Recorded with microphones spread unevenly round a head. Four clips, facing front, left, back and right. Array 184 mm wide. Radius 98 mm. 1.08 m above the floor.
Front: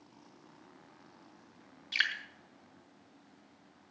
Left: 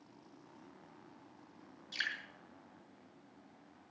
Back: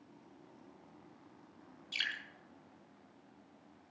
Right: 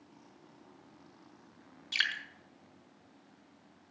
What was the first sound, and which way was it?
Dripping, 50° right.